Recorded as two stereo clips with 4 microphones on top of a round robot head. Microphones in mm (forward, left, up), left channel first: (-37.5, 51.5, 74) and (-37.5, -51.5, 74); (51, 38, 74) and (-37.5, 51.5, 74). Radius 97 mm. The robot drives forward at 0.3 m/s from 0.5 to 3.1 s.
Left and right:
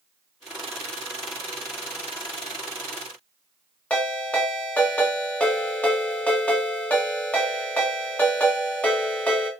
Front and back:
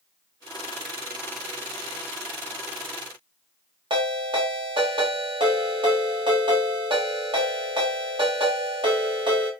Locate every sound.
3.9 s a ringtone: 165° left, 1.6 m